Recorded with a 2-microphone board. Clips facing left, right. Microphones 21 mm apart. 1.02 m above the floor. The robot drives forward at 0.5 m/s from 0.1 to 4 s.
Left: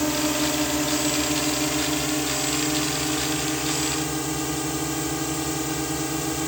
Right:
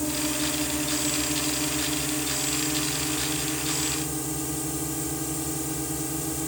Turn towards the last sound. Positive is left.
turn(degrees=35)  # may be behind; listen again after turning